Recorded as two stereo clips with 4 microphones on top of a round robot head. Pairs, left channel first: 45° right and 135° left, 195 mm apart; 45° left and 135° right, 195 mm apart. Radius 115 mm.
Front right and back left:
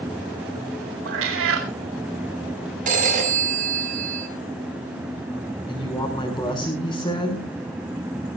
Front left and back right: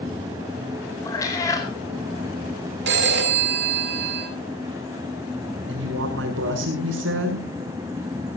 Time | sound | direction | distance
1.1 | a cat meowing | 115° left | 4 m
2.9 | a phone ringing | 170° right | 5.5 m
5.7 | a woman speaking | 115° right | 6 m